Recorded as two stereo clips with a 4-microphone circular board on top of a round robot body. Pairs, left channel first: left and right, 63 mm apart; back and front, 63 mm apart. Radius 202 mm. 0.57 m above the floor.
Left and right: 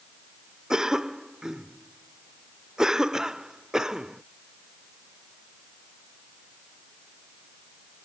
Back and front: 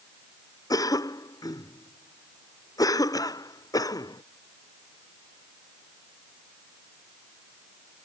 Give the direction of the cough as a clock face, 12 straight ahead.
6 o'clock.